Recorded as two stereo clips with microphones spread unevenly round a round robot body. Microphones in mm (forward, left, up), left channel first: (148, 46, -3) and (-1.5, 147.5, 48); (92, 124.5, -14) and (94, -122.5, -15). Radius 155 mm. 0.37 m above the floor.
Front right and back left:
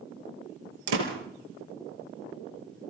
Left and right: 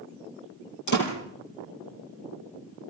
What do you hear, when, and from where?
0.9 s a door slam: 150° left, 5 m